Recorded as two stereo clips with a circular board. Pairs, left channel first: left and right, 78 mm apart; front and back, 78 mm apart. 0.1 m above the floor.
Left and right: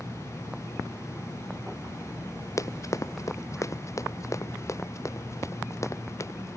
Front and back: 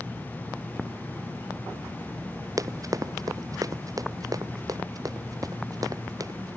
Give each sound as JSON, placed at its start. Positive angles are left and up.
{"t": 2.6, "sound": "running footsteps", "azimuth_deg": 135}